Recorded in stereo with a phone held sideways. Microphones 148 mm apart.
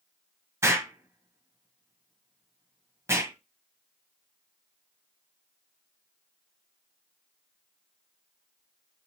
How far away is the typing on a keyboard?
No typing on a keyboard in this recording.